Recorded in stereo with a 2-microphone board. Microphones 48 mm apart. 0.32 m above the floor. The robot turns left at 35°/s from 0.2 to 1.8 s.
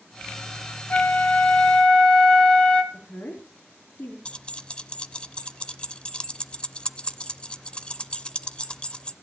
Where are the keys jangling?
25° left (ahead or behind), 0.6 m.